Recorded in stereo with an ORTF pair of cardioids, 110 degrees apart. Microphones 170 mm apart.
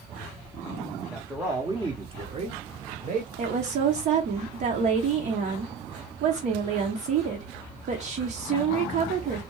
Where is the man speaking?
Straight ahead, 1.1 m; by 3.3 s 60° right, 1.6 m.